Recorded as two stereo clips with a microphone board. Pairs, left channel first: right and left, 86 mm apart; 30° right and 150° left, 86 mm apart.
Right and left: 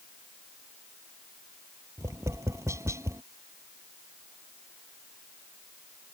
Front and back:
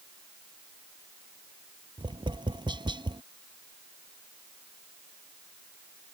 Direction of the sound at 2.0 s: 140° left.